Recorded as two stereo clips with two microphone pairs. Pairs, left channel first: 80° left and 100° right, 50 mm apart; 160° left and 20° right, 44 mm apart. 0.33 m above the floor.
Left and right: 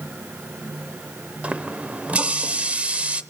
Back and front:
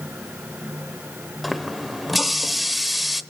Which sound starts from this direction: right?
A running tap, at 1.4 s.